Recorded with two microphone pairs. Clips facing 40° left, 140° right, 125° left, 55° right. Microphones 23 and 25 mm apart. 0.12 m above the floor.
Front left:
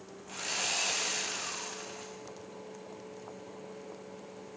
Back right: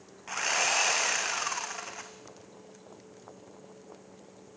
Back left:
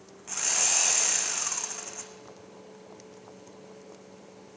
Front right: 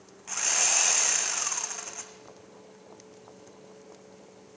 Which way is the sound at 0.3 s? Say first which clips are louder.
Back right 6 dB, front right 1 dB; 130° right.